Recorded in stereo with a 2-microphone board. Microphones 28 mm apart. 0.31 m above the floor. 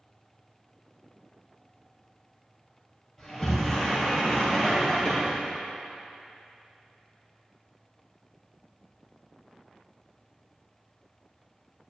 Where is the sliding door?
10° left (ahead or behind), 3.5 m.